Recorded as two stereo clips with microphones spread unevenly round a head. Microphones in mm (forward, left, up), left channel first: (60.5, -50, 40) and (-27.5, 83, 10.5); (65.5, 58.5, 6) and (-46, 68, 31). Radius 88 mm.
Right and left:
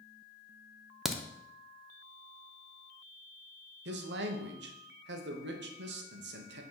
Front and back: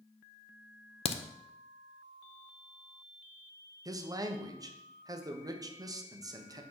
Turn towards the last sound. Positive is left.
turn(degrees=115)